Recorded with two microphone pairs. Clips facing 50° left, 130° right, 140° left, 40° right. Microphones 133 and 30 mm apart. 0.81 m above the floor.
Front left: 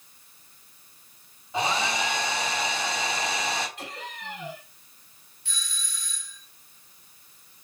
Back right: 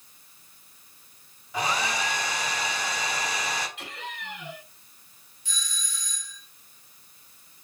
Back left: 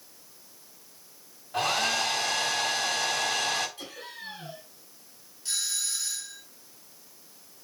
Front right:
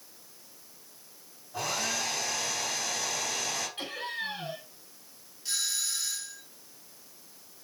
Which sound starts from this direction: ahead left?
A doorbell, at 5.5 s.